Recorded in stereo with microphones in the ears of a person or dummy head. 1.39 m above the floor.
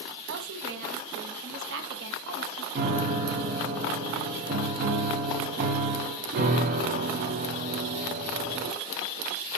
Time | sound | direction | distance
0.3 | a woman speaking | 65° right (ahead or behind) | 0.9 m
2.8 | a piano | 45° right (ahead or behind) | 0.7 m